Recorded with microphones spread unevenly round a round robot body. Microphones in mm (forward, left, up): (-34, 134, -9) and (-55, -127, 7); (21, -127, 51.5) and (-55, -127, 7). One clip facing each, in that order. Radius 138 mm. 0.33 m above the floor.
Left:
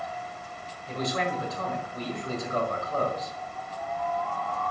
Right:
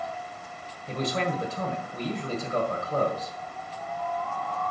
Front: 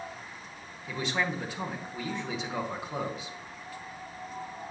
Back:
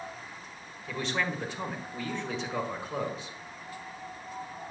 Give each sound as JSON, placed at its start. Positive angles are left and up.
{"t": 0.9, "sound": "a man speaking", "azimuth_deg": -130, "distance_m": 1.7}